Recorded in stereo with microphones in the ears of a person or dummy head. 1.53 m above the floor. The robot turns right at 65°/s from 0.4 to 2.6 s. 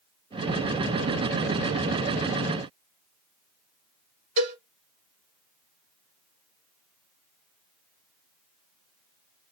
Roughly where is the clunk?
I don't hear a clunk.